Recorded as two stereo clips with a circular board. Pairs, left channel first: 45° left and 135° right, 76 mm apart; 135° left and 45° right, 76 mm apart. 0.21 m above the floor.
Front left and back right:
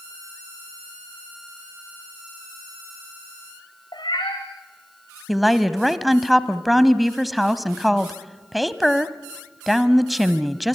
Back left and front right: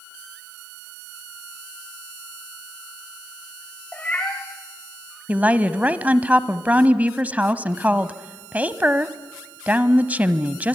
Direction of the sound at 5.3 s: 45° right.